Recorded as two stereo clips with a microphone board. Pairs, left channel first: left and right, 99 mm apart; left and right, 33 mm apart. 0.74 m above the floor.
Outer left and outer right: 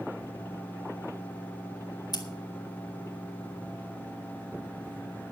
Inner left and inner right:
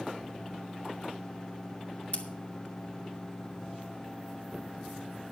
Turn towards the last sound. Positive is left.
turn(degrees=40)  # may be behind; listen again after turning